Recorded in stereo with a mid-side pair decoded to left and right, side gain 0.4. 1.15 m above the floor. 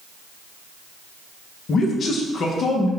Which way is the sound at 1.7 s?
60° left.